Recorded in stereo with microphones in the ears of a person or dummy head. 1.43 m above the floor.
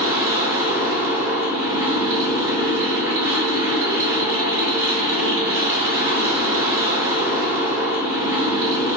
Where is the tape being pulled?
I don't hear tape being pulled.